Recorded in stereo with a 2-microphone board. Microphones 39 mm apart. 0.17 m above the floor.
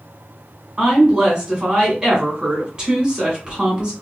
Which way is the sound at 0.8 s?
25° right (ahead or behind).